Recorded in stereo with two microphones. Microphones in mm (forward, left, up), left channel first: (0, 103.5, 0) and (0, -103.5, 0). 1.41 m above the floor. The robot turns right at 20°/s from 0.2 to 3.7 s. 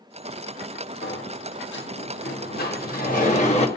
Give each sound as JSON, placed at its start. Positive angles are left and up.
{"t": 1.0, "sound": "a sliding door", "azimuth_deg": 95, "distance_m": 1.2}